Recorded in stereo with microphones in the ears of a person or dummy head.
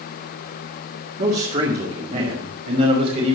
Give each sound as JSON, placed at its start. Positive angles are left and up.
{"t": 1.2, "sound": "a man speaking", "side_deg": -45, "distance_m": 2.0}